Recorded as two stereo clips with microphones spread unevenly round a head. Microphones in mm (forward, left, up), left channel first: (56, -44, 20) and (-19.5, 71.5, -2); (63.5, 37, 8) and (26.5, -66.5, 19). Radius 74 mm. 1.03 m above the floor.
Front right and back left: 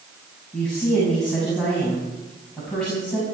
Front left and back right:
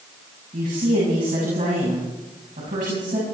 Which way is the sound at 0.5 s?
145° right.